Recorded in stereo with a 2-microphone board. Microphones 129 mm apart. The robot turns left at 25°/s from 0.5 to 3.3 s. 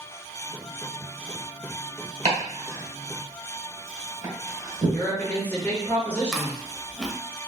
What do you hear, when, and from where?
2.2 s chopping: 60° right (ahead or behind), 1.4 m; by 5.0 s 30° right (ahead or behind), 1.4 m
4.9 s a woman speaking: 15° left (ahead or behind), 1.6 m
6.3 s chewing: centre (ahead or behind), 0.7 m